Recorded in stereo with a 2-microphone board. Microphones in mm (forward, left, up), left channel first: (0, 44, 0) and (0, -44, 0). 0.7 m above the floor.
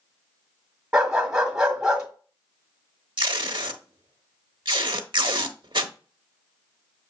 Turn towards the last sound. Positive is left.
turn(degrees=-70)  # may be behind; listen again after turning